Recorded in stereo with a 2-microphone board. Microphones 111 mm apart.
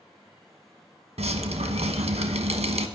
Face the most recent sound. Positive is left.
turn(degrees=-80)